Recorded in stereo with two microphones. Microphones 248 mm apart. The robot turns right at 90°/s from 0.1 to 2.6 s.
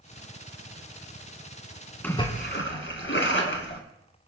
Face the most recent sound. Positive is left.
turn(degrees=55)